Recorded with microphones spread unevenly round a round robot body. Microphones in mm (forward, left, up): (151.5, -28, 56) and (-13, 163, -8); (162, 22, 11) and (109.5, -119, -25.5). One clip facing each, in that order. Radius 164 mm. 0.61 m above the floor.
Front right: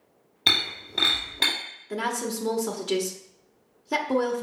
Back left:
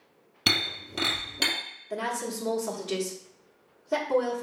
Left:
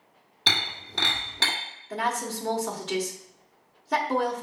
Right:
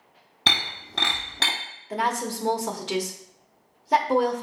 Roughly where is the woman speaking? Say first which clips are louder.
Front right 3 dB, right 3 dB; right.